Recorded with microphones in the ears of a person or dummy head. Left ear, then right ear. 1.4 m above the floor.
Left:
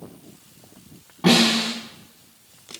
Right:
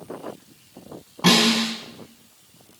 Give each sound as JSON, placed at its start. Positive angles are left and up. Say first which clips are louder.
{"t": 1.2, "sound": "a snare drum", "louder": "even", "side_deg": -25, "distance_m": 5.0}